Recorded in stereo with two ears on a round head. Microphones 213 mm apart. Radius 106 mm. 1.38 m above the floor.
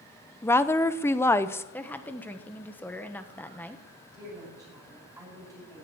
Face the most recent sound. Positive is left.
turn(degrees=-15)  # may be behind; listen again after turning